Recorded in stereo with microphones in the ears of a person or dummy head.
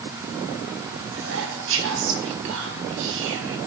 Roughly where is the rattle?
No rattle in this recording.